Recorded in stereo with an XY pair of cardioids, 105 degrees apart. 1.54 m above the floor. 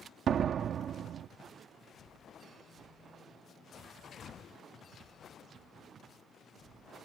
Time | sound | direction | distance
0.3 | a door slam | 60° right | ?